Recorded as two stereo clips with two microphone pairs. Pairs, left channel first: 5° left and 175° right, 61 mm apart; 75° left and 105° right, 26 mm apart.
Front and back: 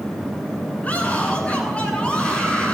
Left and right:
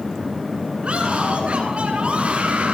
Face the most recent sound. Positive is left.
turn(degrees=-70)